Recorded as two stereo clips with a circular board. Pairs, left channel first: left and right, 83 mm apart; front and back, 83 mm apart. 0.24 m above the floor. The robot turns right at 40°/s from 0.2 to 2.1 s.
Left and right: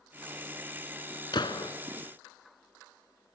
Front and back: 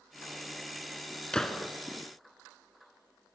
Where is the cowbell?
I don't hear a cowbell.